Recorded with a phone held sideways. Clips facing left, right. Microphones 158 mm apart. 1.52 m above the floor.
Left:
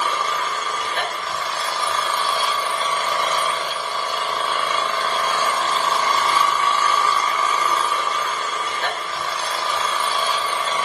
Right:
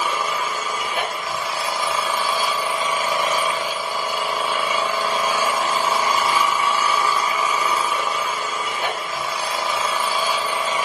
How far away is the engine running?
About 2 m.